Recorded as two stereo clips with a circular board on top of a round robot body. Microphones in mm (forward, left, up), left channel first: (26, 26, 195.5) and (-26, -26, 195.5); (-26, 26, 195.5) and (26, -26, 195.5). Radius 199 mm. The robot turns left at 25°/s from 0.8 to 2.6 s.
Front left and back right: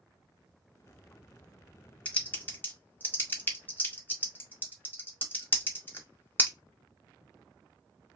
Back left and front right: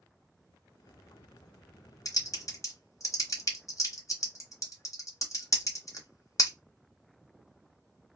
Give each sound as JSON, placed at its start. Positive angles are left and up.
{"t": 2.0, "sound": "typing on a keyboard", "azimuth_deg": 115, "distance_m": 1.4}